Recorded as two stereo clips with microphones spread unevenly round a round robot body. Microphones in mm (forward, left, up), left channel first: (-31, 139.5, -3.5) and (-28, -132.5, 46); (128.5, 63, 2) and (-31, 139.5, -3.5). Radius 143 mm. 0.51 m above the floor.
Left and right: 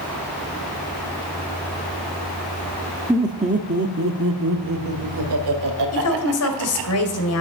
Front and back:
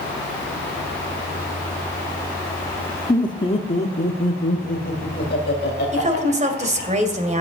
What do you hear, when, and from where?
3.1 s laughter: 15° left, 0.8 m; by 6.9 s 75° right, 3 m
5.9 s a woman speaking: 110° left, 2 m